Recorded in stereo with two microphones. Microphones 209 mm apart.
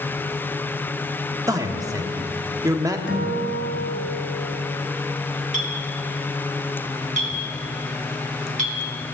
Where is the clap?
I don't hear a clap.